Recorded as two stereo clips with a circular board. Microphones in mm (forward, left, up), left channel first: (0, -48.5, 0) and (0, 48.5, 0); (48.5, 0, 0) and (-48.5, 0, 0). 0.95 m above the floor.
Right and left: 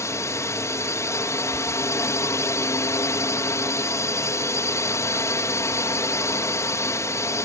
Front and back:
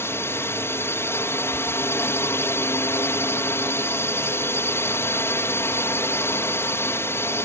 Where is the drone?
50° right.